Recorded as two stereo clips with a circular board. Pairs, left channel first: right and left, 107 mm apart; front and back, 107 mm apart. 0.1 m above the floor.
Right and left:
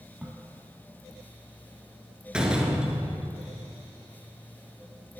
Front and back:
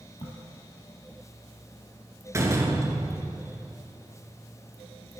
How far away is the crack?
About 1.1 m.